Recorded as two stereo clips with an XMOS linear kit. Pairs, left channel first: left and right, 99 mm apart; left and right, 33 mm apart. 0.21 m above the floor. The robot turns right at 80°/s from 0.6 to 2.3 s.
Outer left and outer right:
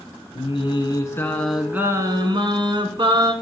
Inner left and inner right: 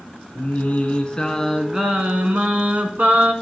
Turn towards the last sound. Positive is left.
turn(degrees=-115)